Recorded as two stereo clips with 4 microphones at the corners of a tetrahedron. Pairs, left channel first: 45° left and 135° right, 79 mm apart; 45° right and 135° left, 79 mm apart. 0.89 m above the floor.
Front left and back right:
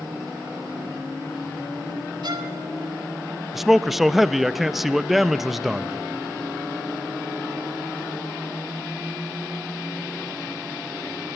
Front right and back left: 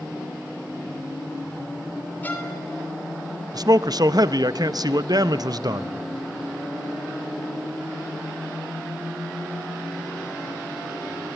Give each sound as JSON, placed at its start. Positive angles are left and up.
{"t": 2.2, "sound": "a violin", "azimuth_deg": -115, "distance_m": 2.0}
{"t": 3.5, "sound": "a man speaking", "azimuth_deg": 140, "distance_m": 0.5}